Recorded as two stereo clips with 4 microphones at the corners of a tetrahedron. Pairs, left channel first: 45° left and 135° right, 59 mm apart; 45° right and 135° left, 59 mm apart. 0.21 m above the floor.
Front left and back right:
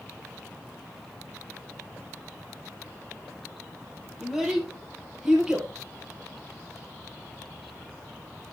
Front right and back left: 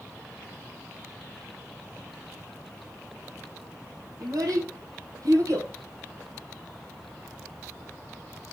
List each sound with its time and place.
4.2 s a child speaking: 145° left, 6 m; by 5.7 s 150° left, 4.5 m